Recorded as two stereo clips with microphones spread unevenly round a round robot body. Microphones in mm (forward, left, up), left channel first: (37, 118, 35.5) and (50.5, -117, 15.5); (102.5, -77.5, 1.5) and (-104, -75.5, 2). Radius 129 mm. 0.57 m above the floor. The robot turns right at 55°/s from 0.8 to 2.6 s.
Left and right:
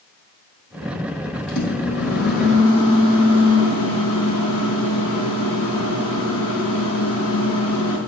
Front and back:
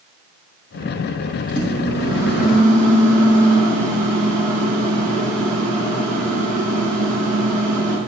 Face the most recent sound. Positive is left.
turn(degrees=165)